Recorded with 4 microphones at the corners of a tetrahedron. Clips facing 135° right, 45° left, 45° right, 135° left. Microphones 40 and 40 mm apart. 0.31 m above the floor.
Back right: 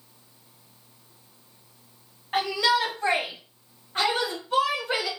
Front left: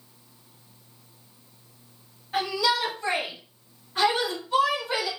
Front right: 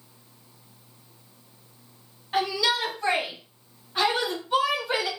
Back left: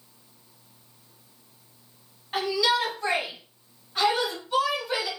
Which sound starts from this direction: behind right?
A shout, at 2.3 s.